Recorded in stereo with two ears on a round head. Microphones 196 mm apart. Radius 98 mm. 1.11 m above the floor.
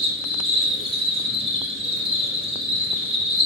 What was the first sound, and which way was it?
An insect, 25° right (ahead or behind).